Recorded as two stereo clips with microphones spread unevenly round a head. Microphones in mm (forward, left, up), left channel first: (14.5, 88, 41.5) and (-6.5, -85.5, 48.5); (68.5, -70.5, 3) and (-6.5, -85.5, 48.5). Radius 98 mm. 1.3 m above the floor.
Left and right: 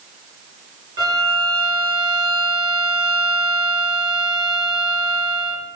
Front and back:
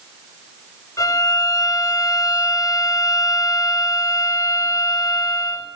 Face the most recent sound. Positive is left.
turn(degrees=-30)